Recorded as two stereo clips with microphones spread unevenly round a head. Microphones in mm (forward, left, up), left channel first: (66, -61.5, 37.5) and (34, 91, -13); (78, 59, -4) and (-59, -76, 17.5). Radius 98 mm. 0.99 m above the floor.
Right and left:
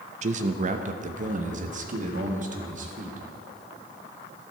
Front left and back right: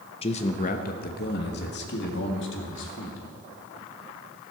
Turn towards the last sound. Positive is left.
turn(degrees=70)